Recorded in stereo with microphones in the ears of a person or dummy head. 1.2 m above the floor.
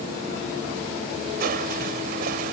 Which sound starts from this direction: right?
Crushing, at 1.4 s.